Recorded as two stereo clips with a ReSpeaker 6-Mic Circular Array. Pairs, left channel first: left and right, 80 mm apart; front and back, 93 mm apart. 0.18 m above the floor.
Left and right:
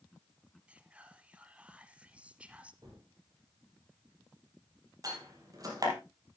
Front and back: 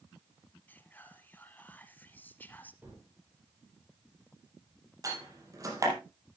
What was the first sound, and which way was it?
Whispering, 40° right.